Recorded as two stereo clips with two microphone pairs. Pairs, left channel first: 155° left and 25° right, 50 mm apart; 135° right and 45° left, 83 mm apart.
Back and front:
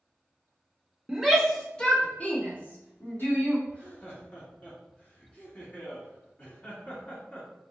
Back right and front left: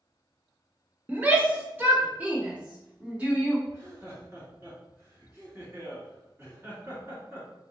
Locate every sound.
1.1 s a shout: 45° left, 1.0 m; by 3.6 s 120° left, 2 m
3.7 s laughter: 105° left, 2.5 m